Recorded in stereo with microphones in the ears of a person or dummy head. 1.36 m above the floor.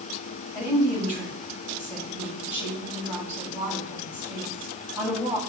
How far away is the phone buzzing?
I don't hear a phone buzzing.